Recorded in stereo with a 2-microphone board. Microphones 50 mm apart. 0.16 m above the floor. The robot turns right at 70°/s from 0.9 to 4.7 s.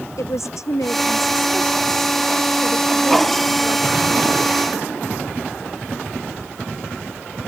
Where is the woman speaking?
95° left; by 4.2 s 35° right.